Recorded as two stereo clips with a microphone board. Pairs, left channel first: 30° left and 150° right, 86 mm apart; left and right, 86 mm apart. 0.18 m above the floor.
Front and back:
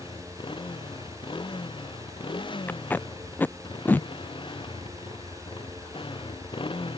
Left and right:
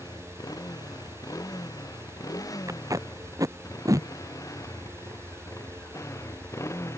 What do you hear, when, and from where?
0.0 s a motorcycle: 45° left; by 7.0 s 35° left
2.7 s tape being pulled: 40° right